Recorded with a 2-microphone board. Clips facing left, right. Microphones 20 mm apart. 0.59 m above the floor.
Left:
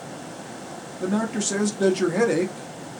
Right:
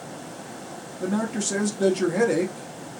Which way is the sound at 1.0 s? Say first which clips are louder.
Left 1 dB; 10° left (ahead or behind).